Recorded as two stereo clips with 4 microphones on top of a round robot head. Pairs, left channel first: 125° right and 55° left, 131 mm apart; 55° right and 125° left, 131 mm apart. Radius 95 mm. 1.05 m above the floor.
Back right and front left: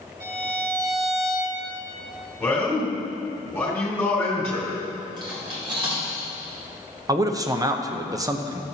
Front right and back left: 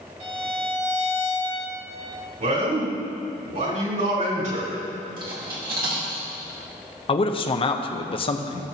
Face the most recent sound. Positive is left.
turn(degrees=-10)